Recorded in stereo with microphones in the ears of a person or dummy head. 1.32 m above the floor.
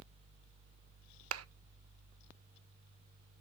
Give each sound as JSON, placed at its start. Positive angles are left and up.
{"t": 1.3, "sound": "a clap", "side_deg": -80, "distance_m": 0.6}